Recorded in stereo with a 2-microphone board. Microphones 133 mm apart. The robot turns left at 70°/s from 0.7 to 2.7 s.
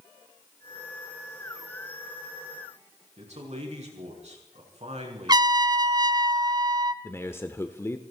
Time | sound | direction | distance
3.2 | a man speaking | 55° right (ahead or behind) | 5 m
5.3 | a trumpet | 30° right (ahead or behind) | 0.6 m
7.0 | a man speaking | 20° left (ahead or behind) | 0.9 m